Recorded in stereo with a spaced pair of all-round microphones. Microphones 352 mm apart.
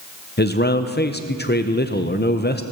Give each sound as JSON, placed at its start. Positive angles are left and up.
{"t": 0.4, "sound": "a man speaking", "side_deg": 30, "distance_m": 0.6}